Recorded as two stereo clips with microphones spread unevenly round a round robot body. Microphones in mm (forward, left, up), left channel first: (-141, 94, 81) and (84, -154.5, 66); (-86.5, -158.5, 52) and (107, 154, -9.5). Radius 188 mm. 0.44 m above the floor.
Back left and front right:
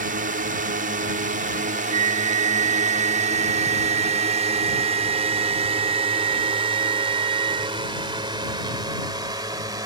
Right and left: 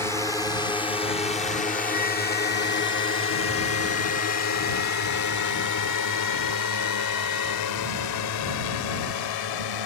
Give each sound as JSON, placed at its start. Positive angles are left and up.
{"t": 0.0, "sound": "a drone", "azimuth_deg": -30}
{"t": 1.9, "sound": "a flute", "azimuth_deg": -15}